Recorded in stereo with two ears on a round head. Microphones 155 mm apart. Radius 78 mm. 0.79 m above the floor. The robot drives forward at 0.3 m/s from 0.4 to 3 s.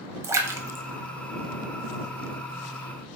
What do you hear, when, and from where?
0.2 s a splash: 15° right (ahead or behind), 0.6 m; by 2.0 s 10° right (ahead or behind), 0.8 m